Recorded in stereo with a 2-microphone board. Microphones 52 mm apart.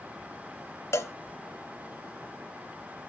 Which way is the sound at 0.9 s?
65° left (ahead or behind).